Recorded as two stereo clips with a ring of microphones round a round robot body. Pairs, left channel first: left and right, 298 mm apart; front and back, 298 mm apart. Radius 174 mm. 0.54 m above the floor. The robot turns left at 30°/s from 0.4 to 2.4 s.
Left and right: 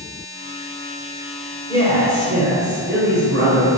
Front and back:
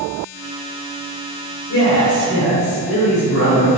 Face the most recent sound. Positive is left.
turn(degrees=-35)